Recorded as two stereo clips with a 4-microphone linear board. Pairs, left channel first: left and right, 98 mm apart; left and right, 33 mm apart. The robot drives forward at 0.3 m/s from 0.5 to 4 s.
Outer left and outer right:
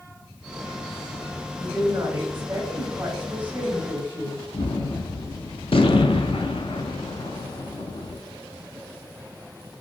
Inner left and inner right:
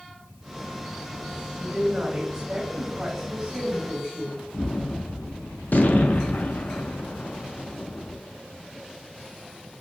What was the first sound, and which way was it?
A woman speaking, 20° right (ahead or behind).